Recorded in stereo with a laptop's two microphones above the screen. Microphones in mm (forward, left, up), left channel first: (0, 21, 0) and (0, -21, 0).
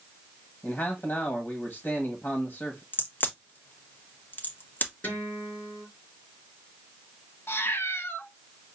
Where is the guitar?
45° left (ahead or behind), 4.5 m.